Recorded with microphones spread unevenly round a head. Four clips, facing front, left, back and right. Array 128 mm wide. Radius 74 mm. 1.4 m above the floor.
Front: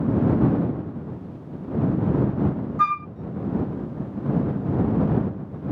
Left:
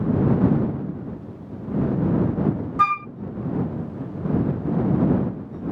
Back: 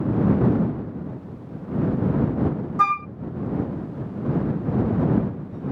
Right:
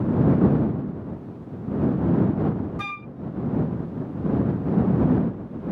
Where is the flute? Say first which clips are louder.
Left 14 dB, back 2 dB; 150° left.